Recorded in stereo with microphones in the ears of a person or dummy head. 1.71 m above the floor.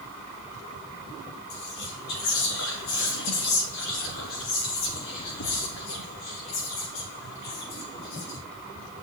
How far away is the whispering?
About 3 m.